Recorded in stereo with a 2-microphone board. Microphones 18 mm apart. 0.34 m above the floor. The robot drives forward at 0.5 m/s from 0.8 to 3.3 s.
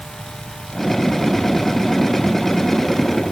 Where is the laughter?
No laughter in this recording.